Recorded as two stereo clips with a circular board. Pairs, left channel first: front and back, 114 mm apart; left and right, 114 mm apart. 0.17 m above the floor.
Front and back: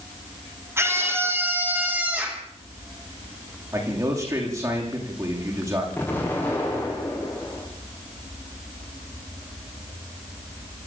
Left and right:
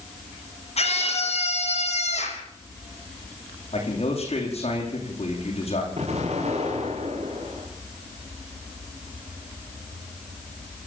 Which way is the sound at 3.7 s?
120° left.